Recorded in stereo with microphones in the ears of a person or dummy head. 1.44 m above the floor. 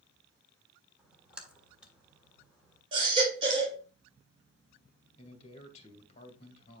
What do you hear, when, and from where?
1.0 s a splash: 10° right (ahead or behind), 1.4 m
2.9 s a baby crying: 40° right (ahead or behind), 3.5 m
5.2 s a man speaking: 35° left (ahead or behind), 2 m